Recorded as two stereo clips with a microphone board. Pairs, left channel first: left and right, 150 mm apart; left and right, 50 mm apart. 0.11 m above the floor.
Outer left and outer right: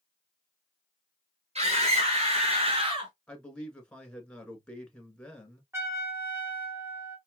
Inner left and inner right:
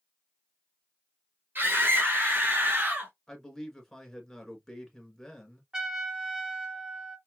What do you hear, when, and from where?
1.6 s a scream: 45° right (ahead or behind), 2 m; by 3.1 s 35° right (ahead or behind), 1.5 m
3.3 s a man speaking: 5° left (ahead or behind), 1.5 m
5.7 s a trumpet: 15° right (ahead or behind), 1.7 m